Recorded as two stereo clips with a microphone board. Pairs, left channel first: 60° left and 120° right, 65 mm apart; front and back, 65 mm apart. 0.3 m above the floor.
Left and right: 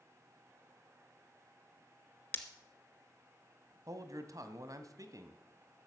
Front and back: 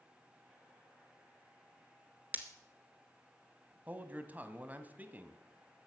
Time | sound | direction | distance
2.3 | breaking glass | 120° left | 1.7 m
3.9 | a man speaking | 120° right | 1.7 m